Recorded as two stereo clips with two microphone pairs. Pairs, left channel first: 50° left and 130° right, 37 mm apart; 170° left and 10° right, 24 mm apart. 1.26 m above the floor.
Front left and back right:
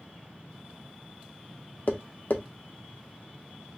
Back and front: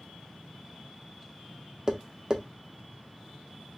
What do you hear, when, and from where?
1.9 s tapping: 40° left, 0.6 m